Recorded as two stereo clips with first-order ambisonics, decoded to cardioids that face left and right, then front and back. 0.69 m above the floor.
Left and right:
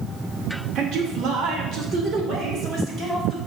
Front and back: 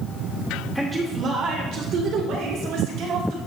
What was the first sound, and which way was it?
A man speaking, 90° right.